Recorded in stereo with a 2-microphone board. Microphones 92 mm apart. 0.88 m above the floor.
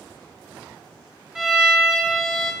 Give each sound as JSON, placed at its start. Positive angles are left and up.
{"t": 1.4, "sound": "a violin", "side_deg": -10, "distance_m": 2.0}